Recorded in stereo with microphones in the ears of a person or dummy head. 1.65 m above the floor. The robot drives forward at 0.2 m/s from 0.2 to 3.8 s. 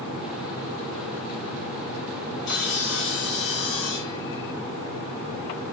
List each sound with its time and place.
2.5 s sawing: 50° left (ahead or behind), 0.6 m